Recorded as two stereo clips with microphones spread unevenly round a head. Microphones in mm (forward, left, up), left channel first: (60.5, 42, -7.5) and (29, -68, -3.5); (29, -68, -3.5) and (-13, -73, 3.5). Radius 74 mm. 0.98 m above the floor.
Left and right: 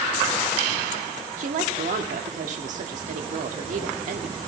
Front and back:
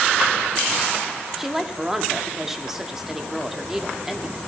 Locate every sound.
1.4 s a woman speaking: 95° right, 1.7 m